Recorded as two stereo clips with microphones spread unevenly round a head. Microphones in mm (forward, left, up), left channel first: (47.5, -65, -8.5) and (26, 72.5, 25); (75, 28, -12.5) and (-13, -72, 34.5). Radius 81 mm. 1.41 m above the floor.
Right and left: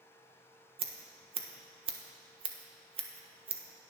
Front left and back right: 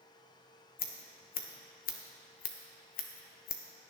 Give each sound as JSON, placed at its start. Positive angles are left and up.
{"t": 0.8, "sound": "scissors", "azimuth_deg": 45, "distance_m": 1.3}